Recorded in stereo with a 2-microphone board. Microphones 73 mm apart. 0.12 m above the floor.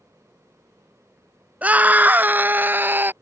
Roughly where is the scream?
Right.